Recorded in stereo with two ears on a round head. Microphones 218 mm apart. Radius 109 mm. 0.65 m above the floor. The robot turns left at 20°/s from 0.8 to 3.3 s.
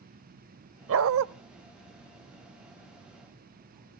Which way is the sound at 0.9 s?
60° right (ahead or behind).